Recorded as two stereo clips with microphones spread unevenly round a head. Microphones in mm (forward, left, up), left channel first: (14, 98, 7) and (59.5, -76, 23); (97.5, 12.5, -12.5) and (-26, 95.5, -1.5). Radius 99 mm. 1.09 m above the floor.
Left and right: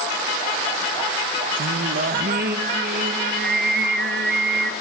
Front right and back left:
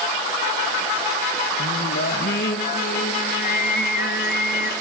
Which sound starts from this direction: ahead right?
Singing, at 1.6 s.